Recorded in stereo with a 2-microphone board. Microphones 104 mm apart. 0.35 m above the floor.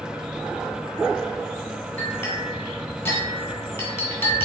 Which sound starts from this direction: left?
A clink, at 2.0 s.